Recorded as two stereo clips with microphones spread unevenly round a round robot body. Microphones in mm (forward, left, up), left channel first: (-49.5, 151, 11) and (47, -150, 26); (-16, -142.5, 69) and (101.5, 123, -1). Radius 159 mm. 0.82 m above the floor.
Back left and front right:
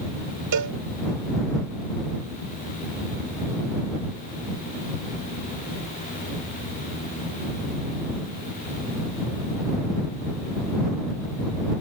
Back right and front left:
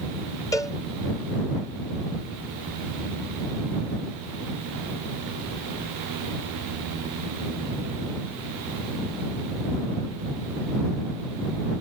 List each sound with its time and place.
0.5 s a cowbell: 35° right